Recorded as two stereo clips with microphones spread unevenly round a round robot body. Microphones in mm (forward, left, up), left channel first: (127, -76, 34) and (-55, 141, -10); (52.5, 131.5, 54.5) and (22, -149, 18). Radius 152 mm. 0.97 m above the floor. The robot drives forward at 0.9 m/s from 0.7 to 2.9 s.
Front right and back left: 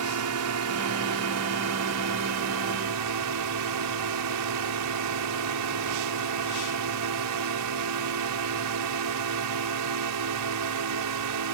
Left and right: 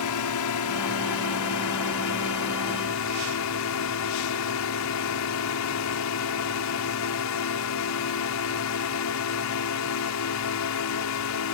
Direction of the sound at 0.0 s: 110° left.